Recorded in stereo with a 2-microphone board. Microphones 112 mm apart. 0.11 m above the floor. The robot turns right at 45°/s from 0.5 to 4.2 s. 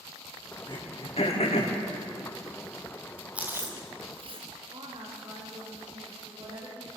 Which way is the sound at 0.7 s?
40° left (ahead or behind).